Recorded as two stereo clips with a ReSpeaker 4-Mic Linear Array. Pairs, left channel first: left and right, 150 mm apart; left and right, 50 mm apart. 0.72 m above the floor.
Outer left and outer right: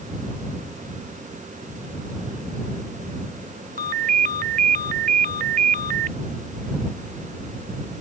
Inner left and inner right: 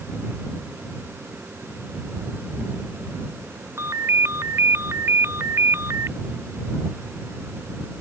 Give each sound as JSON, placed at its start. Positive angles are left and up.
{"t": 3.8, "sound": "a ringtone", "side_deg": -70}